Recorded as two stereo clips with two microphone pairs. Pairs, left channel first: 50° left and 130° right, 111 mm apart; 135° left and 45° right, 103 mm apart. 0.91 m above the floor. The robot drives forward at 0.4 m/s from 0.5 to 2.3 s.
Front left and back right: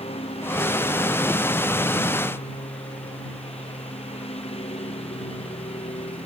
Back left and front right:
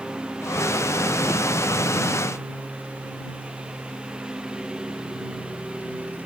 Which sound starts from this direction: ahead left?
A lawn mower, at 0.0 s.